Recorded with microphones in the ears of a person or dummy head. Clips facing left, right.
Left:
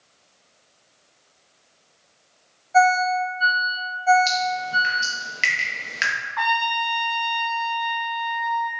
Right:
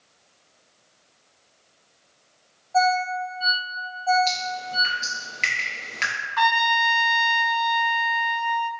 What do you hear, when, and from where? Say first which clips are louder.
2.7 s a ringtone: left 4 dB; 20° left (ahead or behind), 0.7 m
4.3 s dripping: left 4 dB; 15° left (ahead or behind), 0.8 m
6.4 s a trumpet: right 2 dB; 40° right (ahead or behind), 0.5 m